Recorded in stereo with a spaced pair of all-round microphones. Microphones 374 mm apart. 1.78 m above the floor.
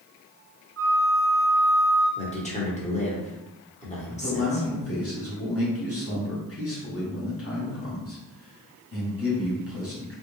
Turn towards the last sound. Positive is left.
turn(degrees=35)  # may be behind; listen again after turning